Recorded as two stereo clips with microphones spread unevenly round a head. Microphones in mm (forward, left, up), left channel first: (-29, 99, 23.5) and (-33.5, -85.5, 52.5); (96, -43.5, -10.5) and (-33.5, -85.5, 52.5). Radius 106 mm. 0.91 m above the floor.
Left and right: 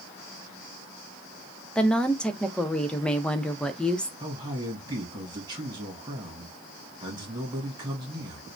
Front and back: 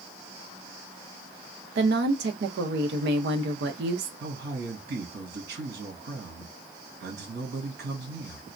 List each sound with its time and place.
1.8 s a woman speaking: 170° left, 0.5 m
4.2 s a man speaking: 160° right, 1.5 m